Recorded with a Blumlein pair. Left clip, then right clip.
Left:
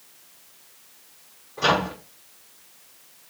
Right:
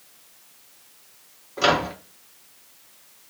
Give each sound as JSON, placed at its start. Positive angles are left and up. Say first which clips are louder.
{"t": 1.6, "sound": "a microwave", "louder": "right 1 dB", "azimuth_deg": -35, "distance_m": 1.1}